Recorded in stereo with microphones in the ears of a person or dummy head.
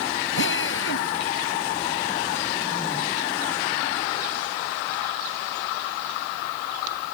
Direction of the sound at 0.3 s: 75° left (ahead or behind).